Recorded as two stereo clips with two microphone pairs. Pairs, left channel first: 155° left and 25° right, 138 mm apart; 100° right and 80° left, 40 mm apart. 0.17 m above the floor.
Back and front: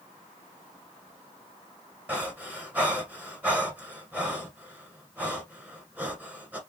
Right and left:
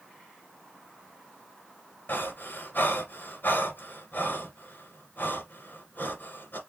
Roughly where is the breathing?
Right.